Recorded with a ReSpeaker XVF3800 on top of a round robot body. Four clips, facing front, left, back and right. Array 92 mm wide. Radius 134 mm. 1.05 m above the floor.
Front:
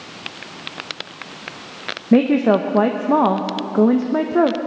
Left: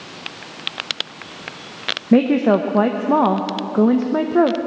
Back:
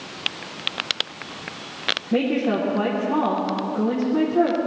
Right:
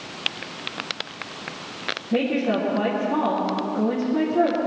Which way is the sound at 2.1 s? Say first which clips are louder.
Left 8 dB, front 8 dB; 45° left.